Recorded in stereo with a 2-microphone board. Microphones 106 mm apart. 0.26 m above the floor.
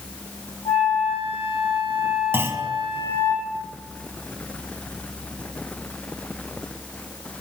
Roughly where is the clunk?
Right.